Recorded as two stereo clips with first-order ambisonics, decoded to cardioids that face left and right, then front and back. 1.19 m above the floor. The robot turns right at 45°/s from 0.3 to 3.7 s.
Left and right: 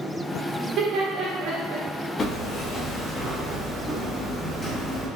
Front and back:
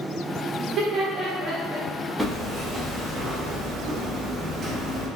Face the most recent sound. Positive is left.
turn(degrees=170)